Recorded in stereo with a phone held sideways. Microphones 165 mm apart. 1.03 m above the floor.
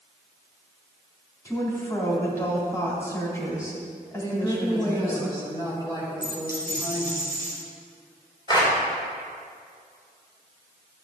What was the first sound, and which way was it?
A woman speaking, 20° left (ahead or behind).